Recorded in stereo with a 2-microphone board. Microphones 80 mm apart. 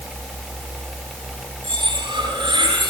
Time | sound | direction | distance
1.6 | cutlery clinking | 85° right | 7.5 m